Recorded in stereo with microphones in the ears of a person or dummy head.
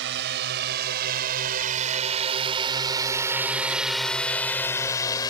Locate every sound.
0.0 s a drone: 60° right (ahead or behind); by 5.3 s 20° left (ahead or behind)